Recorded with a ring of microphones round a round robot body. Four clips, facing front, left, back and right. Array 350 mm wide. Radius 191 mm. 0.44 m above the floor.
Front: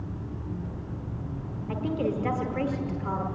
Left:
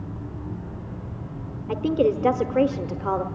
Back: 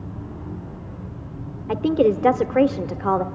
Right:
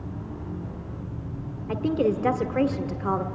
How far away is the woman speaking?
About 1.2 m.